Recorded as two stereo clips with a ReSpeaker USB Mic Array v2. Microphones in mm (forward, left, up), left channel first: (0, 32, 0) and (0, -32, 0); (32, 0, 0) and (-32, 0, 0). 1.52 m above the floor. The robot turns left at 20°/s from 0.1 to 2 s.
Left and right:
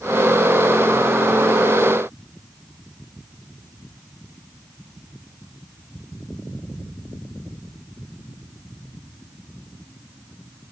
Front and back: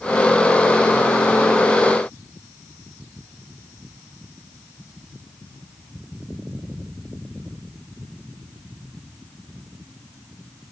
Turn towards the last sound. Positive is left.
No sound to turn to.